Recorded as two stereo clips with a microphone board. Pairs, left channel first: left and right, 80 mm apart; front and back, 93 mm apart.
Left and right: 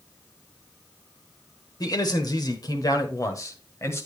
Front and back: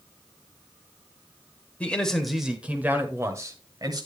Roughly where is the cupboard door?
No cupboard door in this recording.